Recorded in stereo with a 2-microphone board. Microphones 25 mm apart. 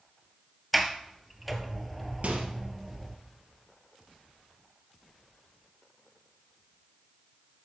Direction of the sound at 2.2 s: 55° right (ahead or behind).